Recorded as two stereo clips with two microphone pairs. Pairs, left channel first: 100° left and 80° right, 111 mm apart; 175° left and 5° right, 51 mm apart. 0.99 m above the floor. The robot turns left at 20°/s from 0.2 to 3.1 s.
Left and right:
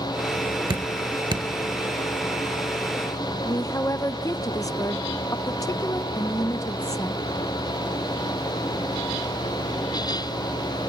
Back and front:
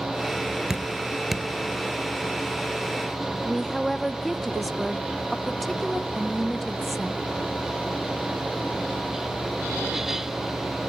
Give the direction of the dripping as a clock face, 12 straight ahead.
3 o'clock.